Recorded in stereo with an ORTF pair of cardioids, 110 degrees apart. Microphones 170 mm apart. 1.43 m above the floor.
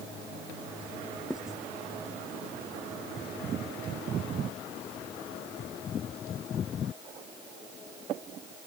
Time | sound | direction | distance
1.3 | writing | 5° right | ?